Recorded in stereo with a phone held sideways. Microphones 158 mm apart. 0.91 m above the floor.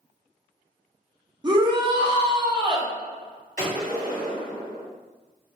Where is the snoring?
No snoring in this recording.